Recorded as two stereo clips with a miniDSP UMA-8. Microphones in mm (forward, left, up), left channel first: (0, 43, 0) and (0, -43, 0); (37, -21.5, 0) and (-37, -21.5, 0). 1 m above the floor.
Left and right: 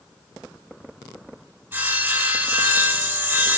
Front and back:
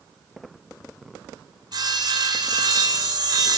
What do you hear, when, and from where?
1.7 s sawing: 160° right, 4 m